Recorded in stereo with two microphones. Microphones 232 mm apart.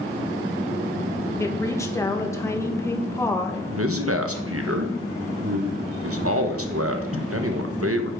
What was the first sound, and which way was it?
A woman speaking, 10° left (ahead or behind).